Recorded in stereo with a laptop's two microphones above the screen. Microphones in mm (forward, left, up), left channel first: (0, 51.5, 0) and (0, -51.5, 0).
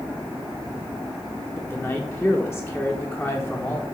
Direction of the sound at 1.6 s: 10° left (ahead or behind).